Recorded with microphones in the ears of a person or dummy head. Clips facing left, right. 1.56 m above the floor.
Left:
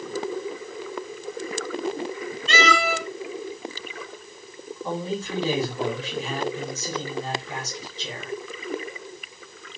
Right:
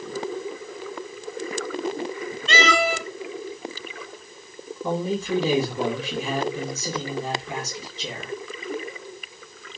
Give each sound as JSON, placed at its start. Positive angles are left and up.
{"t": 2.5, "sound": "a cat meowing", "side_deg": -45, "distance_m": 2.5}
{"t": 4.8, "sound": "a man speaking", "side_deg": -70, "distance_m": 2.0}